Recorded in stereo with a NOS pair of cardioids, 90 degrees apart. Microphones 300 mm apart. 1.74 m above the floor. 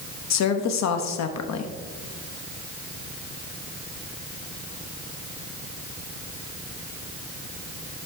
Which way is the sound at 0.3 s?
60° left.